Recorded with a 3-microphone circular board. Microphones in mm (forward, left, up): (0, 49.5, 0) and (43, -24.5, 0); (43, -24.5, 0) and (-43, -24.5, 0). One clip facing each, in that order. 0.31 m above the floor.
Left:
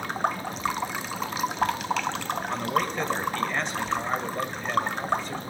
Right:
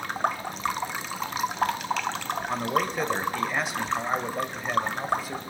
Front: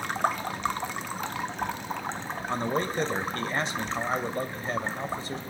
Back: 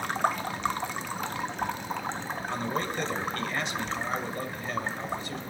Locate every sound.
2.5 s a man speaking: 15° left, 1.0 m